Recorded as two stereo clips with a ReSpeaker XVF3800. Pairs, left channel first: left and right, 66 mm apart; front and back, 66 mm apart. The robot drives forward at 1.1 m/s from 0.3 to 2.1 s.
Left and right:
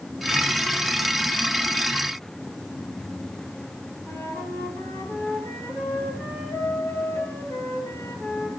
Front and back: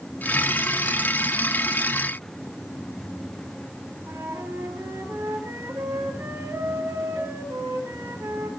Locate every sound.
4.1 s a flute: 145° left, 4.5 m